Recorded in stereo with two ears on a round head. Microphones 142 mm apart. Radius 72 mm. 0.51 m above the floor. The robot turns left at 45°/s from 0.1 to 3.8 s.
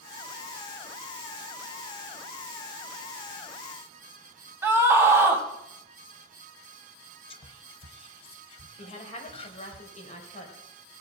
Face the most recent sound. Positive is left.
turn(degrees=45)  # may be behind; listen again after turning